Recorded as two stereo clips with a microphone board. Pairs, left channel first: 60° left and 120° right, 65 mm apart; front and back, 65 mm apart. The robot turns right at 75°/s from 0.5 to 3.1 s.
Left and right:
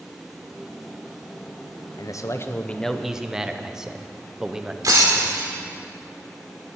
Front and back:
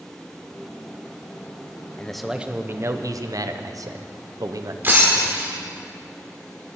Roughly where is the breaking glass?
Behind right.